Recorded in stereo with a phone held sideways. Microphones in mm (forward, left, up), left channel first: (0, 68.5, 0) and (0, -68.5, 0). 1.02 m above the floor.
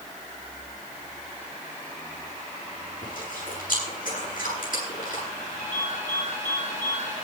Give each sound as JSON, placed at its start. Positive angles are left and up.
{"t": 3.0, "sound": "chewing", "side_deg": 75, "distance_m": 9.5}
{"t": 5.6, "sound": "a ringtone", "side_deg": 80, "distance_m": 9.0}